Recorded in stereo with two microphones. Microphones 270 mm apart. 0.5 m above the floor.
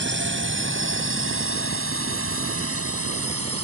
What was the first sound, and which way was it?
A drone, 45° right (ahead or behind).